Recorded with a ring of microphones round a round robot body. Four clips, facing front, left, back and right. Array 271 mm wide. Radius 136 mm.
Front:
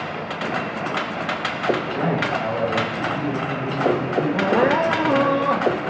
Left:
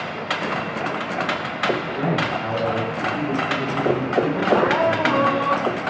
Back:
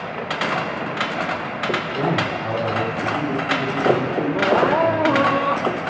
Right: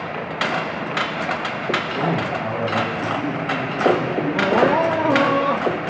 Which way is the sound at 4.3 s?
5° right.